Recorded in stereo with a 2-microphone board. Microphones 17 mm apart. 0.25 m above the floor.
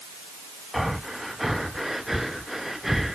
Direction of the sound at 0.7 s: 15° right (ahead or behind).